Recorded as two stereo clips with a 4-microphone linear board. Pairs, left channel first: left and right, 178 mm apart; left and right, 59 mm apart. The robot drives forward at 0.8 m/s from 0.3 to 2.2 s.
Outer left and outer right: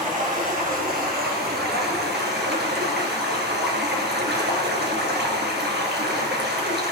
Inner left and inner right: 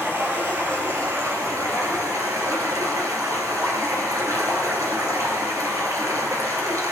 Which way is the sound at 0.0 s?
45° right (ahead or behind).